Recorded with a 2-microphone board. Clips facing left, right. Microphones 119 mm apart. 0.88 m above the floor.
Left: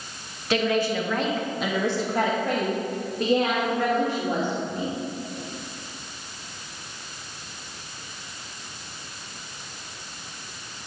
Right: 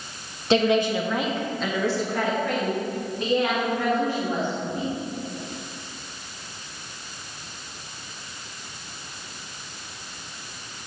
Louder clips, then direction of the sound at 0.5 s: Right 3 dB; 25° right (ahead or behind).